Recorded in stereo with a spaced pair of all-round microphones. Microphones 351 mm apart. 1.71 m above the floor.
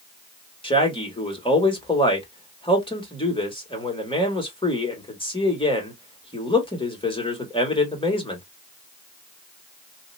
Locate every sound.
0.6 s a man speaking: 15° left (ahead or behind), 1.5 m